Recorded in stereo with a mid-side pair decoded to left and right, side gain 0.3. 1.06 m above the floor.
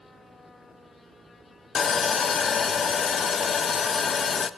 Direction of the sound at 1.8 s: 65° left.